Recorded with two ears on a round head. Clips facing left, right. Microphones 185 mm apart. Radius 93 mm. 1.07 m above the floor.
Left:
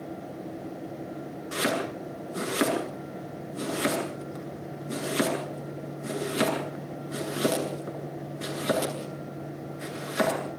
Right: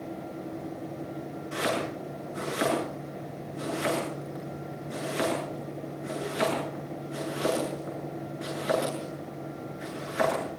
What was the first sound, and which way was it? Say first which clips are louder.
Chopping: left 1 dB; 55° left (ahead or behind).